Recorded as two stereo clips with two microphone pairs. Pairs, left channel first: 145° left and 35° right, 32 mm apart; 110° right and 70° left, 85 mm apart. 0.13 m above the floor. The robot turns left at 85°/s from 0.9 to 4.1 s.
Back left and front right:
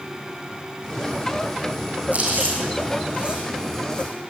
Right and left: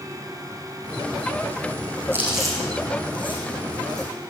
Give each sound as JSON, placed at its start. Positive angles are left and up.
{"t": 2.1, "sound": "chewing", "azimuth_deg": 5, "distance_m": 6.5}